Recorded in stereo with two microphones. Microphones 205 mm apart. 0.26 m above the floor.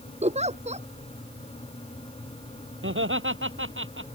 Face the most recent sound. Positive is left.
turn(degrees=-80)